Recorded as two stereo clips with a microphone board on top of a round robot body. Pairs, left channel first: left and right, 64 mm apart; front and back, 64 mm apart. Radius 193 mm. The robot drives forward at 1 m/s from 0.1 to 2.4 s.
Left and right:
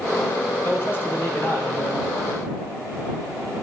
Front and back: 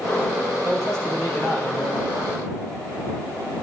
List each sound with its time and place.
0.6 s a man speaking: 140° left, 4 m; by 2.3 s 150° left, 5 m